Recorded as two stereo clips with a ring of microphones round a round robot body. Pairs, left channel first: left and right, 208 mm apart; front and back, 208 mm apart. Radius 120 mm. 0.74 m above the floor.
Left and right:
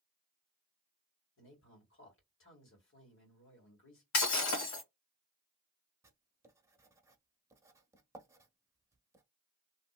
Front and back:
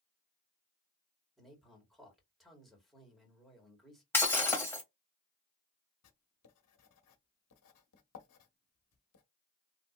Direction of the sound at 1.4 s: 90° left.